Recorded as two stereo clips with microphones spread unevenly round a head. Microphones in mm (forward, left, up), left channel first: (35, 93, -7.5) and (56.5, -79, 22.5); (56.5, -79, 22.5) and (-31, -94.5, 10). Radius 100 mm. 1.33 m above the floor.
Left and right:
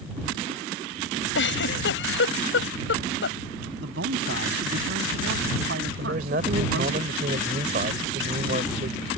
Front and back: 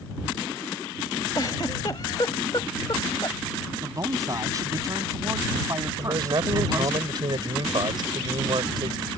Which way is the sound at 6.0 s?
135° right.